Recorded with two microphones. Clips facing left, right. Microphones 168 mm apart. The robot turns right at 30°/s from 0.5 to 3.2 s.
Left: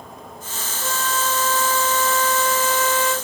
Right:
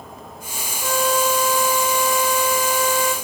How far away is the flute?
About 0.7 m.